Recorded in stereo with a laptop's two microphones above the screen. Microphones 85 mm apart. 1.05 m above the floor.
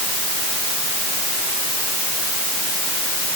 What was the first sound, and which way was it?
Only background noise.